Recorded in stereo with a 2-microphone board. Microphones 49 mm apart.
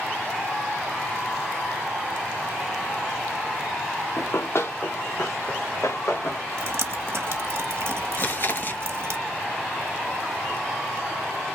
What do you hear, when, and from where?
4.2 s running footsteps: 55° left (ahead or behind), 0.5 m; by 6.4 s 80° left, 1.6 m
6.6 s dripping: 55° right (ahead or behind), 0.7 m
8.2 s chewing: 45° left (ahead or behind), 0.6 m